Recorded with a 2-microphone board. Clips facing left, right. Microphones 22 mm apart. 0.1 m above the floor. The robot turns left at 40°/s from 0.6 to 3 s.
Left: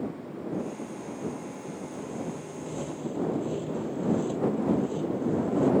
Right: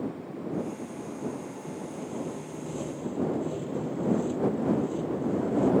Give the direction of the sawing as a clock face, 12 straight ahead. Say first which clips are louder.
Right 1 dB; 5 o'clock.